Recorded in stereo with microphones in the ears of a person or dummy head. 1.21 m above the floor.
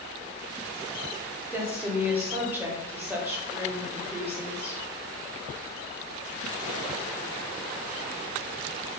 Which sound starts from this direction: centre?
A woman speaking, at 1.5 s.